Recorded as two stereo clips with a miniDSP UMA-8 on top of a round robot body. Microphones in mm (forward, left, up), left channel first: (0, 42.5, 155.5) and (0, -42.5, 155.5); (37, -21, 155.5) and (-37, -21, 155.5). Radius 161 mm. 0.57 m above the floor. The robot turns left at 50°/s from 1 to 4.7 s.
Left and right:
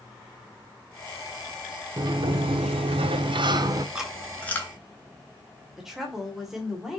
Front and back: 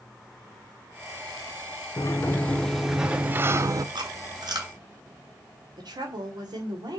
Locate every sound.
2.0 s a sliding door: 50° right, 0.6 m; by 3.9 s 145° right, 0.6 m
4.0 s chewing: 170° right, 2.5 m; by 4.7 s 150° left, 2.5 m
5.8 s a woman speaking: 175° right, 2.5 m